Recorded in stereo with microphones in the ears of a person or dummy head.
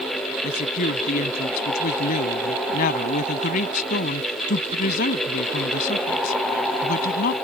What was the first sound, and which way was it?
A woman speaking, 50° left (ahead or behind).